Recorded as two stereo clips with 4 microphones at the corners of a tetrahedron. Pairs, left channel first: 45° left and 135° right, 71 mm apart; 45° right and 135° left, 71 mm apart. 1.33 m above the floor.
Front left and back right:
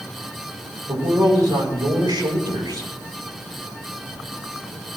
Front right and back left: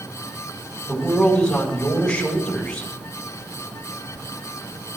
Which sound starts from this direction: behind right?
A man speaking, at 0.9 s.